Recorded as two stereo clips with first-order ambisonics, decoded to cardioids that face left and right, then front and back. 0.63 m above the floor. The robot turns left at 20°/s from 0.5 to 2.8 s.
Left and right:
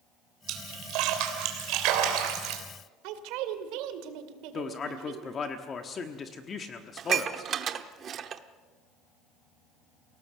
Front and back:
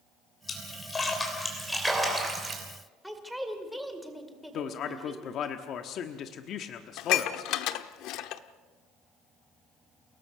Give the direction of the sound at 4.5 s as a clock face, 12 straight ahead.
11 o'clock.